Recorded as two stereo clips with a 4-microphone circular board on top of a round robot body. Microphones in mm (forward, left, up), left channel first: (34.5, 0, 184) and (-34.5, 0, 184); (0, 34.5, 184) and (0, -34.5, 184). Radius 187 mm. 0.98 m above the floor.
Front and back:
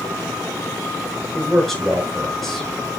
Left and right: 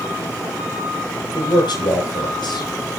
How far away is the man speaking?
About 6 m.